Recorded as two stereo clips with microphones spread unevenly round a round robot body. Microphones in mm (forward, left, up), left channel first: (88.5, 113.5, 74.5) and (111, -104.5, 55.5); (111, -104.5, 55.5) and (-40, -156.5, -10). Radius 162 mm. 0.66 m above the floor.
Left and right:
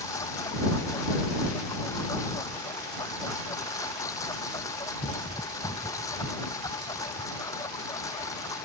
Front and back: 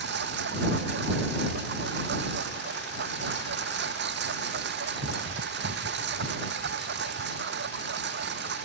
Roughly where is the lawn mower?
Behind.